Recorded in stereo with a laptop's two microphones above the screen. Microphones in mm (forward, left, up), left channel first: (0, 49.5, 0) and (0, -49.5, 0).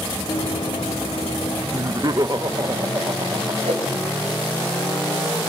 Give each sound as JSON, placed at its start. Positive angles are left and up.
{"t": 0.3, "sound": "running footsteps", "side_deg": 65, "distance_m": 7.5}
{"t": 1.7, "sound": "laughter", "side_deg": -40, "distance_m": 0.7}
{"t": 3.6, "sound": "a whoosh", "side_deg": -80, "distance_m": 5.5}